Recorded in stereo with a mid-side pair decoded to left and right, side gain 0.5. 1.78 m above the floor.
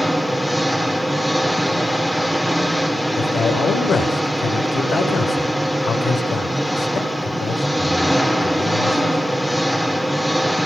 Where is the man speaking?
55° left, 8.5 m.